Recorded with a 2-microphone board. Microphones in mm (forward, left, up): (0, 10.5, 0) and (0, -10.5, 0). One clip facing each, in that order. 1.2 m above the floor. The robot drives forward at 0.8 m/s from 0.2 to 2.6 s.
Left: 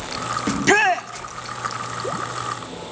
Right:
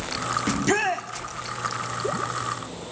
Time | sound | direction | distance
0.5 | a shout | 35° left (ahead or behind) | 0.5 m